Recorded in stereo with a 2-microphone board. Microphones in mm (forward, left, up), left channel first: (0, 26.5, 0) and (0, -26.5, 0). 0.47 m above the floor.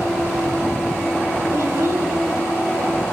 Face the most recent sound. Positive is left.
turn(degrees=-65)  # may be behind; listen again after turning